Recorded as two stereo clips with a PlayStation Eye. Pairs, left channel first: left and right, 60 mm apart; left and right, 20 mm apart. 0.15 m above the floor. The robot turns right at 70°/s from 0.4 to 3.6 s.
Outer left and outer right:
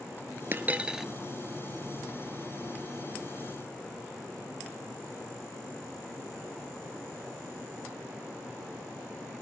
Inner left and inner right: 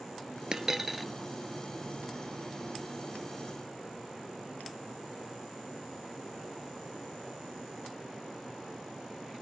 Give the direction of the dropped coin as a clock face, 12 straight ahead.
1 o'clock.